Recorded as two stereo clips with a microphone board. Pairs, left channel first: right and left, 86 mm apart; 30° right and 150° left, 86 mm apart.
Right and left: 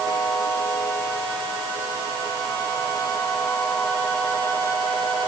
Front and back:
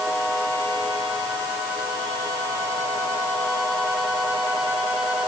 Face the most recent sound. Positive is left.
No sound to turn to.